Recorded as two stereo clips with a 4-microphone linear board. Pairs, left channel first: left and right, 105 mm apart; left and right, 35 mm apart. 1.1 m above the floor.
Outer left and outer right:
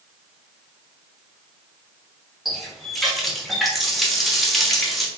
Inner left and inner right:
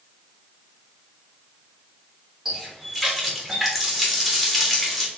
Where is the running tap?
Centre (ahead or behind), 0.8 m.